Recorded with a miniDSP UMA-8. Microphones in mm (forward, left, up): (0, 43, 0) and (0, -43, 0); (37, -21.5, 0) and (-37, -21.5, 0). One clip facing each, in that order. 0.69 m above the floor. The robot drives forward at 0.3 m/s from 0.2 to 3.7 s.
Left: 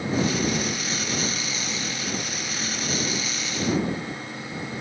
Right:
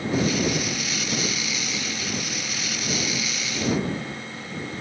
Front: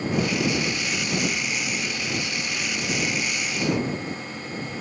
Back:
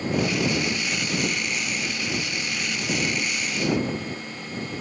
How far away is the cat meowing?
No cat meowing in this recording.